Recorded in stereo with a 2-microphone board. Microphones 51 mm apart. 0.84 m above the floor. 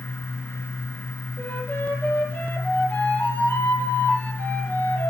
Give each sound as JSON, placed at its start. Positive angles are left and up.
{"t": 1.4, "sound": "a flute", "side_deg": 35, "distance_m": 8.0}